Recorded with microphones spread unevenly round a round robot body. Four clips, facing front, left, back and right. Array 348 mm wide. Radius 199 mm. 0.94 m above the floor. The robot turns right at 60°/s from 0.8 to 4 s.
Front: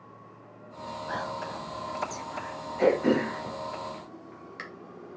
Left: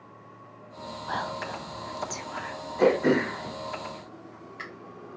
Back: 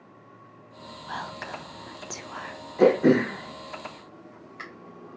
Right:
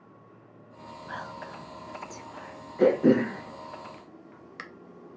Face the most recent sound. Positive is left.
turn(degrees=-85)